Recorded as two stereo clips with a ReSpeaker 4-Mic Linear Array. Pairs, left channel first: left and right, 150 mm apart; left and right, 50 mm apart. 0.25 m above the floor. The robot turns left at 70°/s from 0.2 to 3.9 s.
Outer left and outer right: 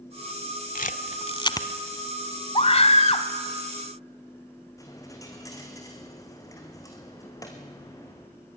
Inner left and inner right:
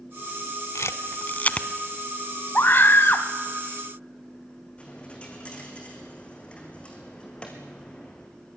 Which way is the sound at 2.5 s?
115° left.